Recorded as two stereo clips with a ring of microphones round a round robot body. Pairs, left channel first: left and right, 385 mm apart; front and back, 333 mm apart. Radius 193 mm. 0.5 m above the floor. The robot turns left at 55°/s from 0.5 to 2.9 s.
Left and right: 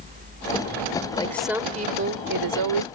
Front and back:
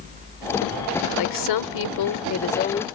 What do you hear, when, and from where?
1.1 s a woman speaking: 15° left; by 2.9 s 80° right